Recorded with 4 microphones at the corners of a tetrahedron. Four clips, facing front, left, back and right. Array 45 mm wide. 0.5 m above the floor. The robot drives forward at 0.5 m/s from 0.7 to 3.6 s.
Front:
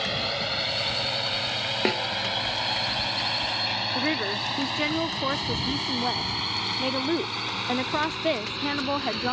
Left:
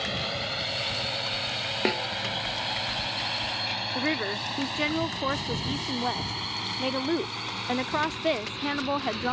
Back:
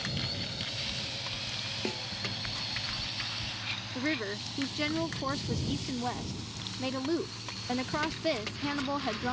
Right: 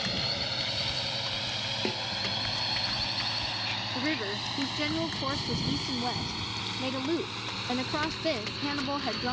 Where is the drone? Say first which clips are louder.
Left 1 dB, front 8 dB; 20° left; by 9.3 s 10° left.